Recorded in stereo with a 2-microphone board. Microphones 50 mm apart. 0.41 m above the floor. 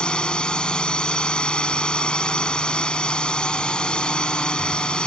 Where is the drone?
20° left (ahead or behind).